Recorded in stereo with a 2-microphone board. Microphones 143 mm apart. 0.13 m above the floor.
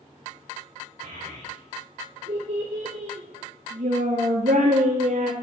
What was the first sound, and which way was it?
A child speaking, 55° right (ahead or behind).